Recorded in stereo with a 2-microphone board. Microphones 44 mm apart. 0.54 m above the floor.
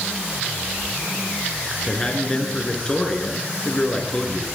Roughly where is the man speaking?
Centre.